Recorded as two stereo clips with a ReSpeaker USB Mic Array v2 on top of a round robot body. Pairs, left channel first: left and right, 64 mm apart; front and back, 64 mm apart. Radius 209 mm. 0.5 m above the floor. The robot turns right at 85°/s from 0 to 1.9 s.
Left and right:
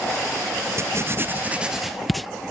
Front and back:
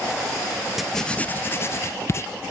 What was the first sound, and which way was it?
Writing, 95° right.